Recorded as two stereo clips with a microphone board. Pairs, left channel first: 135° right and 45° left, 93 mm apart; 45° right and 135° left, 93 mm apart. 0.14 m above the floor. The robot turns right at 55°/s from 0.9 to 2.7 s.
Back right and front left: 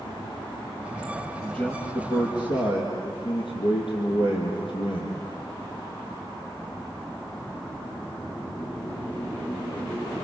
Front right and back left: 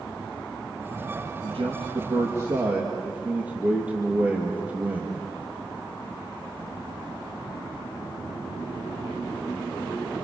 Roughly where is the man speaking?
Behind left.